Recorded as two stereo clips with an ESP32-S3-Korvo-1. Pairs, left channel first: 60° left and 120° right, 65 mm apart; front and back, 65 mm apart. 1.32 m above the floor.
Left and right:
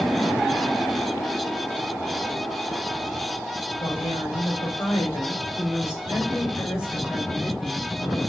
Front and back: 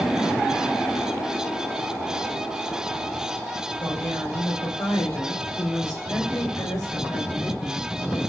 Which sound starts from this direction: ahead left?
A woman speaking, at 3.8 s.